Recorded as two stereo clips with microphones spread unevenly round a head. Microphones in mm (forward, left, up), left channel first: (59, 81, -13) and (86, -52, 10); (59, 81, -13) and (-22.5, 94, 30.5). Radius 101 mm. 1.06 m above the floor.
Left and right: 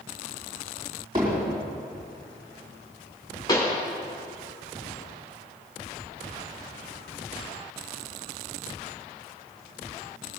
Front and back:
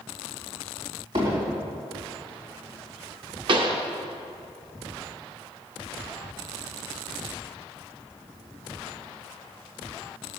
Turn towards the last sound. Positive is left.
turn(degrees=175)